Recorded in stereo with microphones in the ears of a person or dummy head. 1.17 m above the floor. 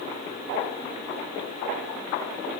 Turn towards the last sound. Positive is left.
No sound to turn to.